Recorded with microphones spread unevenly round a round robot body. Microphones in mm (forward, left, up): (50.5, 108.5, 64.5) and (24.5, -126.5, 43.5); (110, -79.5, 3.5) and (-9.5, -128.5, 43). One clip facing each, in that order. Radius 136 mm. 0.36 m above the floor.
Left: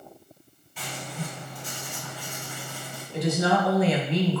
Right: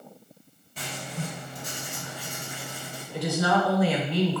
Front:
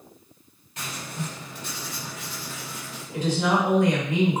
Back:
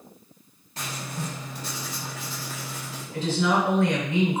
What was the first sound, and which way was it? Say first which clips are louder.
Writing: right 1 dB, back 1 dB; 100° right.